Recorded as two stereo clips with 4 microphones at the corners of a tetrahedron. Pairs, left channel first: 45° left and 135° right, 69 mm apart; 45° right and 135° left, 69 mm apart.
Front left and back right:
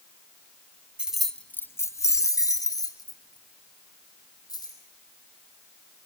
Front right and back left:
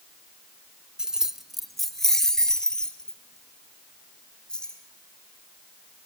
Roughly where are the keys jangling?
Behind.